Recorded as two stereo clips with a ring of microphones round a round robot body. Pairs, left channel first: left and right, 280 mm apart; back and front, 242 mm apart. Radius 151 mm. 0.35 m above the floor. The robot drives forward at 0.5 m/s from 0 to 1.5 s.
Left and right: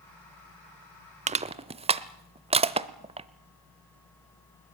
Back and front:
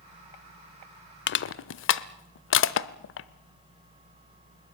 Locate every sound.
1.3 s crushing: 150° right, 0.6 m; by 3.3 s 155° right, 0.7 m